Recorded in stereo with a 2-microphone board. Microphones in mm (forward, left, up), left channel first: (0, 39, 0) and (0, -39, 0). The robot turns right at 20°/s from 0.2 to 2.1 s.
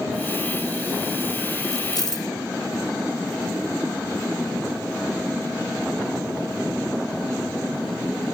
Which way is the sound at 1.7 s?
50° left (ahead or behind).